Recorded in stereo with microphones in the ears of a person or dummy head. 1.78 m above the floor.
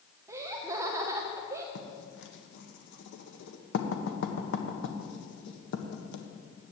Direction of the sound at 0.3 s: 15° right (ahead or behind).